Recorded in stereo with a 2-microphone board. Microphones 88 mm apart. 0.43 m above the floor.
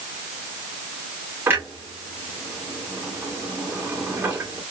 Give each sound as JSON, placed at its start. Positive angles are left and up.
{"t": 1.5, "sound": "a clunk", "side_deg": -25, "distance_m": 2.0}